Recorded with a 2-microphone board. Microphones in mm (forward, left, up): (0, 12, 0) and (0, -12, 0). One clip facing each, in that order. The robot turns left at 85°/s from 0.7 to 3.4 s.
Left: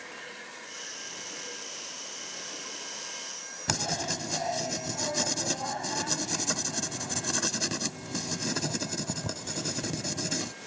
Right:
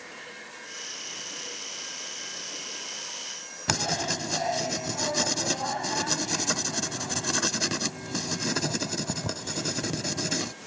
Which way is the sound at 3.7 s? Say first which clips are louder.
Right 3 dB; 20° right (ahead or behind).